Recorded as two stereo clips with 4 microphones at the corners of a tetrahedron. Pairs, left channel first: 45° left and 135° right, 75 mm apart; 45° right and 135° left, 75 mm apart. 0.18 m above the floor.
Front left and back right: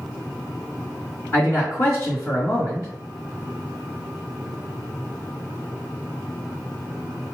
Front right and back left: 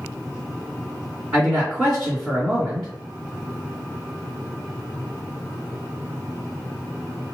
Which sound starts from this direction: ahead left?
A man speaking, at 1.3 s.